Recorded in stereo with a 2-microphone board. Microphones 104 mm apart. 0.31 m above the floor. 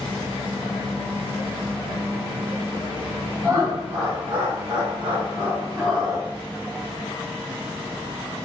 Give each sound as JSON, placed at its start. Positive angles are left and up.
{"t": 3.4, "sound": "laughter", "side_deg": -45, "distance_m": 1.5}